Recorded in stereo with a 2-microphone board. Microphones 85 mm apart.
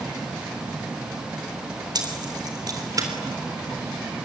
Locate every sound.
1.9 s keys jangling: 55° right (ahead or behind), 3.5 m; by 3.1 s 45° right (ahead or behind), 3.5 m